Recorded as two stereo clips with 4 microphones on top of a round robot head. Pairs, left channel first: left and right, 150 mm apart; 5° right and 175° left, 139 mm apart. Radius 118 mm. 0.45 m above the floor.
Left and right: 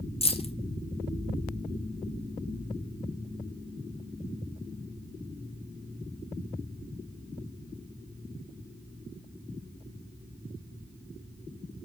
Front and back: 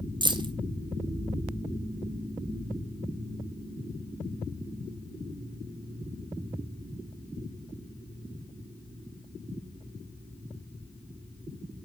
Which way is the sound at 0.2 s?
125° left.